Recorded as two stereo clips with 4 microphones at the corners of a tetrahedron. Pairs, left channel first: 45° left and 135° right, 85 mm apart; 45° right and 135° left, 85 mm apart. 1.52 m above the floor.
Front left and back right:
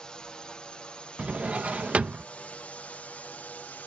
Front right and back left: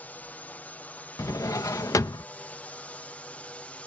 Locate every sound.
0.0 s a drone: 20° right; by 3.9 s 5° left
1.2 s a drawer: 70° right